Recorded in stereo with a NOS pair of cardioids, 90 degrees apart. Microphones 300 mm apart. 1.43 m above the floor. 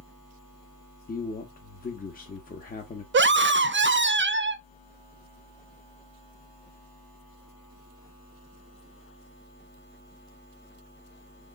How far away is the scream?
About 0.6 m.